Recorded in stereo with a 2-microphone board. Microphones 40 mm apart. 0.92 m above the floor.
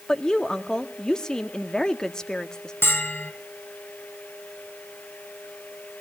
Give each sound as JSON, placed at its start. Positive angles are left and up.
{"t": 0.1, "sound": "a woman speaking", "side_deg": 15, "distance_m": 1.3}
{"t": 2.8, "sound": "a bell", "side_deg": 75, "distance_m": 2.5}